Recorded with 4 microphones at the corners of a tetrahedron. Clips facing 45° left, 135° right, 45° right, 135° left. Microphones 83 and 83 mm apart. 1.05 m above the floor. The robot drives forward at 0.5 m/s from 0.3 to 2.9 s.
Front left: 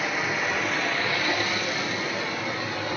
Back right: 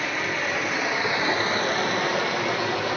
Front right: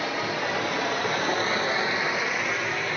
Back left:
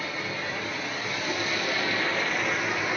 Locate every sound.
0.0 s running water: 40° right, 0.9 m; by 3.0 s 145° right, 0.9 m